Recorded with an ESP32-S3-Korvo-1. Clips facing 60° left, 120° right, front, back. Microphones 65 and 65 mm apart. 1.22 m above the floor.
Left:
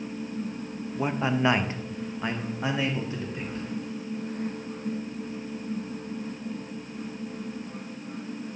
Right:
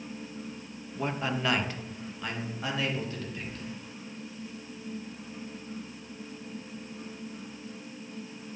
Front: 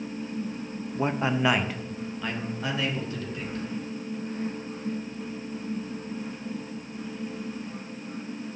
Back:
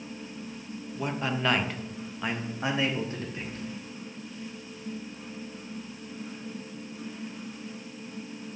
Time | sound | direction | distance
0.9 | a man speaking | straight ahead | 0.6 m